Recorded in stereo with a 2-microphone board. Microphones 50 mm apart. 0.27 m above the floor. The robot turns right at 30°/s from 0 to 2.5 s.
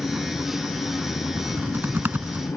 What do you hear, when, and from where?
0.0 s an engine running: 35° left; by 2.6 s 110° left
1.4 s typing on a keyboard: 70° right; by 2.5 s 40° right